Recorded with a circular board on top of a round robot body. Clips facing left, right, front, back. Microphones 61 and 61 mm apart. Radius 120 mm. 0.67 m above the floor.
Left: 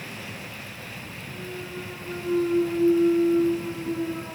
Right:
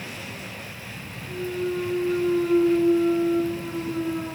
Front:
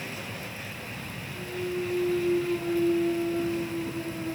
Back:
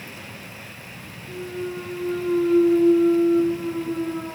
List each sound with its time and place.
1.3 s a clunk: 165° right, 4.5 m